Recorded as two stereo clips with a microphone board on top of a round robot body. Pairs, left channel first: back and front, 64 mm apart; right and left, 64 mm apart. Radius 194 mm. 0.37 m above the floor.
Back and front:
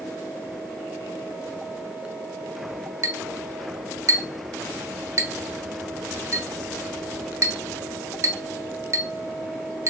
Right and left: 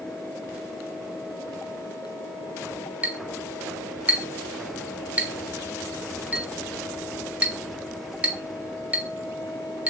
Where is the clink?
25° left, 0.9 m.